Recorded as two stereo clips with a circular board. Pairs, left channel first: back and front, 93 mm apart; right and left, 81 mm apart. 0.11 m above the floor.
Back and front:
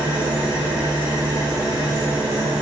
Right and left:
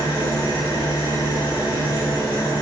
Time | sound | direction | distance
0.0 | an engine running | 65° right | 4.5 m